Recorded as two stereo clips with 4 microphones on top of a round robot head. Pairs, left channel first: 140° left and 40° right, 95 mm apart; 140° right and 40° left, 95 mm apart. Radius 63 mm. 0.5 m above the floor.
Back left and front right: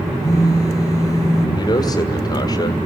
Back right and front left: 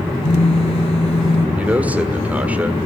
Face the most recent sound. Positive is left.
turn(degrees=110)